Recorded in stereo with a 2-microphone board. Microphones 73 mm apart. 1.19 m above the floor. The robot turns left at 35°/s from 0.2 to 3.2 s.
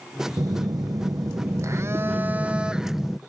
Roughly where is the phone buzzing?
Right.